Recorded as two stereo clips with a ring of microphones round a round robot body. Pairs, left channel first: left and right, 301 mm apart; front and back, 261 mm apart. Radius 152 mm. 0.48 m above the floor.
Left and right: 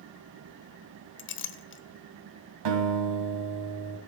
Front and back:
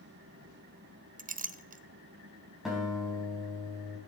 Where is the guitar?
90° right, 2.5 m.